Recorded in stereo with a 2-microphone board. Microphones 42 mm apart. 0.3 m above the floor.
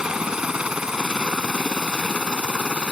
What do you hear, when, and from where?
0.0 s a helicopter: 20° right (ahead or behind); by 2.9 s 25° right (ahead or behind)